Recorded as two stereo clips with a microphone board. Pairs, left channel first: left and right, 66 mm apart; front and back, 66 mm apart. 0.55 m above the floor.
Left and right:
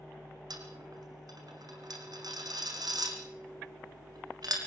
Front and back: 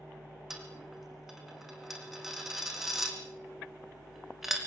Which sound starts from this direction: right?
A dropped coin, at 0.5 s.